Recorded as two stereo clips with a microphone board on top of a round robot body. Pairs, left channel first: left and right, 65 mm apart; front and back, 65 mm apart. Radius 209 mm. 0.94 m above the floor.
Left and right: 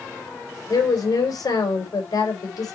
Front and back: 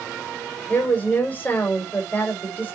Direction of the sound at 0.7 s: 70° left.